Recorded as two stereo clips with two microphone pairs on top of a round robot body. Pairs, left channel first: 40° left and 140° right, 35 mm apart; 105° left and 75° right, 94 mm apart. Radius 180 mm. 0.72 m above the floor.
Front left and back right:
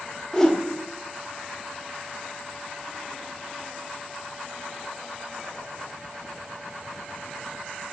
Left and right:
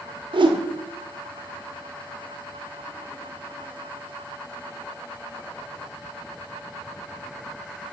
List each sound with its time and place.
0.3 s a whoosh: 40° right, 1.3 m